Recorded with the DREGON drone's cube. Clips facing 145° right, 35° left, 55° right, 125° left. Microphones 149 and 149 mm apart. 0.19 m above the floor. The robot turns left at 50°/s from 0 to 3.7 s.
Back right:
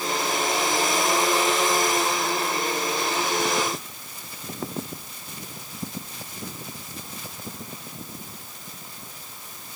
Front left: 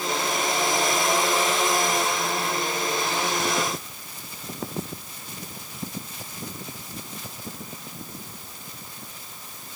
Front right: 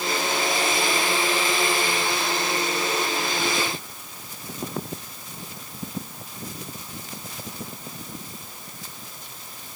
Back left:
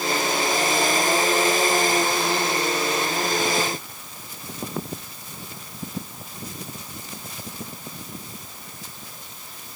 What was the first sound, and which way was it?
Only background noise.